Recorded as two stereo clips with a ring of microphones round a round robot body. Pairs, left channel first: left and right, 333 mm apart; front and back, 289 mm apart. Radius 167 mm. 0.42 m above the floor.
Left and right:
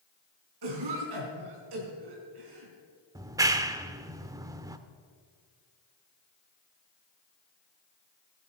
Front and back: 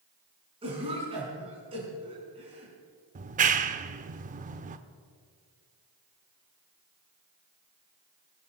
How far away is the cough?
About 4.5 m.